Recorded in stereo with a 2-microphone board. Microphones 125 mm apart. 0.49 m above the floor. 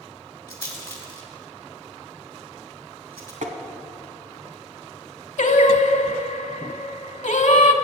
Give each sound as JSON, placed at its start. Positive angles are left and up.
{"t": 0.5, "sound": "a rattle", "side_deg": 20, "distance_m": 2.5}
{"t": 3.4, "sound": "tapping", "side_deg": -80, "distance_m": 1.2}
{"t": 5.4, "sound": "singing", "side_deg": 75, "distance_m": 0.7}